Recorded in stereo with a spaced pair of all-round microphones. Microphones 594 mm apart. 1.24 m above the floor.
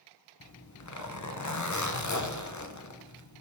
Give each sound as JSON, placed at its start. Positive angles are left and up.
{"t": 0.4, "sound": "a zipper", "side_deg": 30, "distance_m": 0.6}